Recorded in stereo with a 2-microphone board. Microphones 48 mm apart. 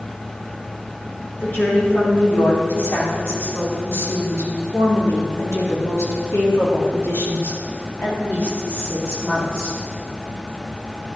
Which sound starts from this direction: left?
A woman speaking, at 1.4 s.